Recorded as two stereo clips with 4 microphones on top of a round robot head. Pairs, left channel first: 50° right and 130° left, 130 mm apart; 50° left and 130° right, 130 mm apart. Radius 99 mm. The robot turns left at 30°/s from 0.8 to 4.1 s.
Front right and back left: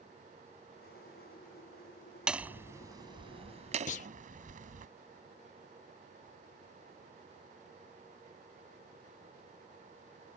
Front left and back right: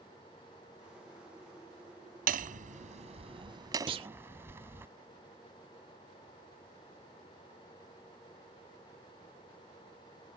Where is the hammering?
145° right; by 4.9 s 160° left.